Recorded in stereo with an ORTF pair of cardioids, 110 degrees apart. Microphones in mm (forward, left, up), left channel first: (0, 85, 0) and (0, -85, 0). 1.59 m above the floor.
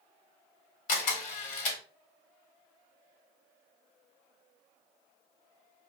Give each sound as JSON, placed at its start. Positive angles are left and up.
{"t": 0.9, "sound": "a camera shutter", "azimuth_deg": 50, "distance_m": 0.9}